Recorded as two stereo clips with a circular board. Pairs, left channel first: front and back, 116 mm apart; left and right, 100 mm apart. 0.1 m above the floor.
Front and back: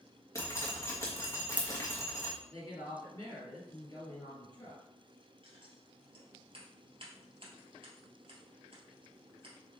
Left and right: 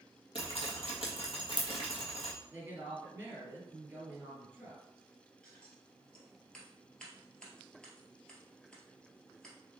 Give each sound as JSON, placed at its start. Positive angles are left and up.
{"t": 0.3, "sound": "dripping", "azimuth_deg": 65, "distance_m": 1.5}
{"t": 2.5, "sound": "a woman speaking", "azimuth_deg": -35, "distance_m": 2.0}
{"t": 5.4, "sound": "scissors", "azimuth_deg": 170, "distance_m": 1.7}